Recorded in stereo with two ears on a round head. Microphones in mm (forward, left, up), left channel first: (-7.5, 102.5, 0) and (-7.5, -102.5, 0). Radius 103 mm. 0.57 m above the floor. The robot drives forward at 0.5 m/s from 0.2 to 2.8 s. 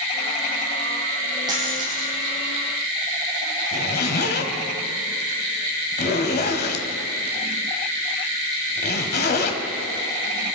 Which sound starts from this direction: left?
A zipper, at 3.7 s.